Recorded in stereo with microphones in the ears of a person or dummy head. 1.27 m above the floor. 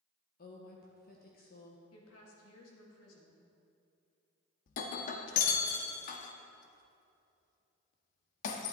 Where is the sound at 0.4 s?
45° left (ahead or behind), 1.2 m.